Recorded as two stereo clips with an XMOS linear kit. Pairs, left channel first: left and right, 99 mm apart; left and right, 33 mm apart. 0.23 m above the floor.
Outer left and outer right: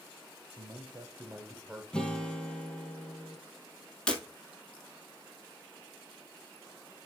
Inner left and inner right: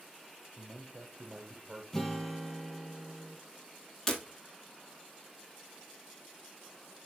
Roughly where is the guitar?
Centre.